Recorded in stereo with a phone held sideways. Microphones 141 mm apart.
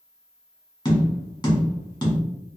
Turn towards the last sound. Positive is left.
turn(degrees=30)  # may be behind; listen again after turning